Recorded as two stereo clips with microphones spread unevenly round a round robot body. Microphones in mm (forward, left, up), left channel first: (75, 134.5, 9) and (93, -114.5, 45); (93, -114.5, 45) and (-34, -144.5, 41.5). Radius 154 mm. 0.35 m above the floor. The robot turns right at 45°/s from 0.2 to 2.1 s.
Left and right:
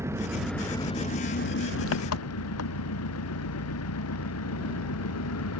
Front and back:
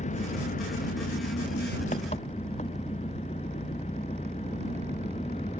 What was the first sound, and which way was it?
An engine running, 5° right.